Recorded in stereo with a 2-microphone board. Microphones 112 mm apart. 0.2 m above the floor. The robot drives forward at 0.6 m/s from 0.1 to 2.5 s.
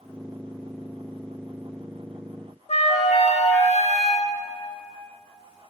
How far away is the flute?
About 0.7 m.